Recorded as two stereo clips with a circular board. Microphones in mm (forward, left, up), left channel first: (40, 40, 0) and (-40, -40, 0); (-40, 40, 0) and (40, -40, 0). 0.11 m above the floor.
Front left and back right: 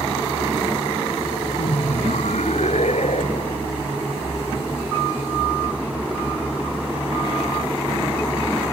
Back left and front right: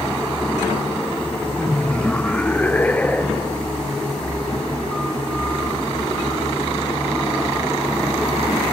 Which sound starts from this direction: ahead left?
Laughter, at 1.6 s.